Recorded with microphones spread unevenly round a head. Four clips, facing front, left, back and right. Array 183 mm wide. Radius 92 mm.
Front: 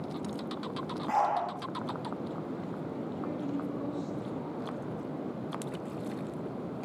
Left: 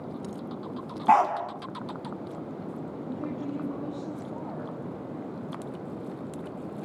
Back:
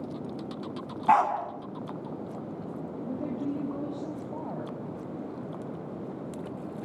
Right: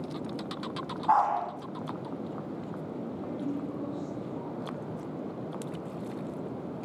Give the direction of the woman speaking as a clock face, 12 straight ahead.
6 o'clock.